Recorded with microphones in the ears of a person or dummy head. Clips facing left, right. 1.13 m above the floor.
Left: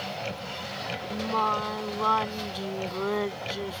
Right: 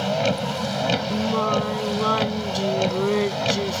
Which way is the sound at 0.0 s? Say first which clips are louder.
Right 13 dB; 80° right.